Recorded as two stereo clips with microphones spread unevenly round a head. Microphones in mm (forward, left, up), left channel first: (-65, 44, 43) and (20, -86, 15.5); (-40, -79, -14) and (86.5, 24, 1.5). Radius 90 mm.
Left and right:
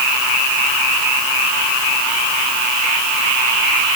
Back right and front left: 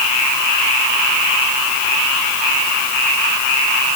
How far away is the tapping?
No tapping in this recording.